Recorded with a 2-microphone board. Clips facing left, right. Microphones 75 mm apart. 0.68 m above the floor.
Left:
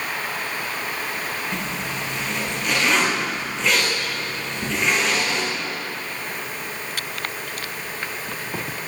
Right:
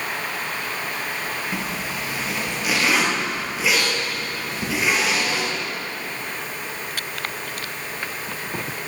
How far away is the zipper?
About 5 m.